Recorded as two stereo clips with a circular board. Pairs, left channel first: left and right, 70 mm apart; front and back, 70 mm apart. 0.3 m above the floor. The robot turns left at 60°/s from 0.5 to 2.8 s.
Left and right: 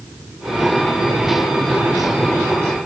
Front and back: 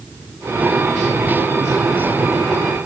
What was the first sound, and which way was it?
Only background noise.